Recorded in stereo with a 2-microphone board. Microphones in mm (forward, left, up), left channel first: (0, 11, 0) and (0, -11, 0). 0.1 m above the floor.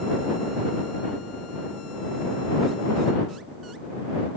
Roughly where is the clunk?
I don't hear a clunk.